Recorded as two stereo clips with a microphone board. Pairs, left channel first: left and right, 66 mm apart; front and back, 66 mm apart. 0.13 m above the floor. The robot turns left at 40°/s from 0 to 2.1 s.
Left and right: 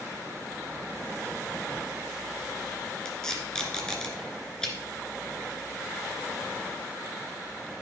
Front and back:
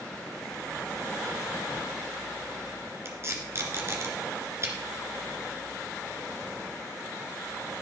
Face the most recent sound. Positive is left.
turn(degrees=165)